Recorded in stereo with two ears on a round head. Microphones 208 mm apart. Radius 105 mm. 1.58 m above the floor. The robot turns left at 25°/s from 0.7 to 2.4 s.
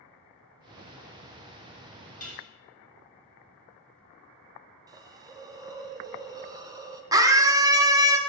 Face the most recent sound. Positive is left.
turn(degrees=-15)  # may be behind; listen again after turning